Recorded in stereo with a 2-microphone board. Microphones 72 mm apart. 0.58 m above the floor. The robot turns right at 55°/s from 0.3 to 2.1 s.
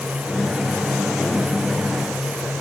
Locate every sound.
Only background noise.